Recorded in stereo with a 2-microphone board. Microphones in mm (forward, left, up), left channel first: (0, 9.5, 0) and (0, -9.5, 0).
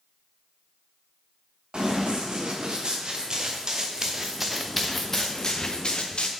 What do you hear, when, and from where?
1.7 s running footsteps: 50° right (ahead or behind), 2.5 m; by 6.3 s 65° left (ahead or behind), 1.2 m